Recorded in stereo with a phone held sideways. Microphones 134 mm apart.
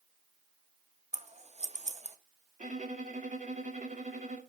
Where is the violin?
70° right (ahead or behind), 1.9 m.